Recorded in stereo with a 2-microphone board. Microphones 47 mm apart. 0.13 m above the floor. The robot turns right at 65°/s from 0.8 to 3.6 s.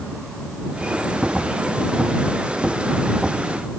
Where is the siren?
No siren in this recording.